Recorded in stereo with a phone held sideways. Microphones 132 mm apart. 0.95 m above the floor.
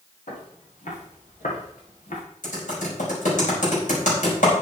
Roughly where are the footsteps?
Left.